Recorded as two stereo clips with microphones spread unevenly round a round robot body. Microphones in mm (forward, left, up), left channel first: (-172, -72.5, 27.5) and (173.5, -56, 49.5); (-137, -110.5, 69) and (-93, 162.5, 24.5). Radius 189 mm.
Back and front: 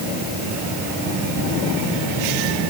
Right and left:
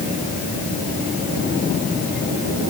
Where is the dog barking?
I don't hear a dog barking.